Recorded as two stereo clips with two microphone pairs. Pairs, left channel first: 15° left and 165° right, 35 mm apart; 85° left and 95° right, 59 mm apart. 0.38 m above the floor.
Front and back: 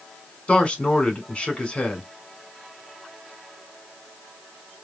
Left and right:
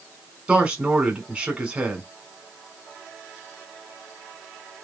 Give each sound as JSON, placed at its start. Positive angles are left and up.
{"t": 0.5, "sound": "a man speaking", "azimuth_deg": -35, "distance_m": 1.6}